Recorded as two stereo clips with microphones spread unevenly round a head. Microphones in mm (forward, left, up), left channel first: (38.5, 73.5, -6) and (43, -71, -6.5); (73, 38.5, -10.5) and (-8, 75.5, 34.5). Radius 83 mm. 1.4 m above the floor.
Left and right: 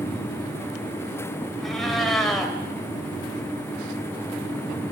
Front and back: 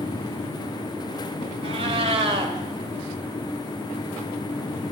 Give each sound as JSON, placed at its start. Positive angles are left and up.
{"t": 1.6, "sound": "a cat meowing", "azimuth_deg": 180, "distance_m": 3.0}